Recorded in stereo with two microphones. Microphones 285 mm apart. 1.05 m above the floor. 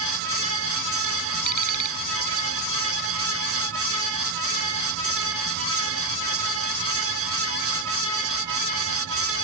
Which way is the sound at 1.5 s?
85° left.